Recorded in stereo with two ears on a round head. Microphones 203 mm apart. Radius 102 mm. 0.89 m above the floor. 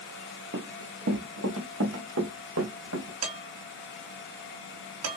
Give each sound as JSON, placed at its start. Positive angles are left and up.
{"t": 0.5, "sound": "running footsteps", "side_deg": -55, "distance_m": 1.4}
{"t": 3.2, "sound": "dishes clattering", "side_deg": -80, "distance_m": 3.5}